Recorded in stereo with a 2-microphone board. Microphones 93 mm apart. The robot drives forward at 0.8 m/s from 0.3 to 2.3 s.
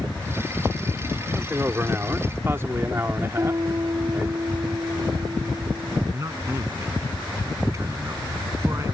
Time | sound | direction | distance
1.4 | a man speaking | 20° right (ahead or behind) | ?
3.4 | a guitar | 40° right (ahead or behind) | ?
6.1 | a man speaking | 30° right (ahead or behind) | ?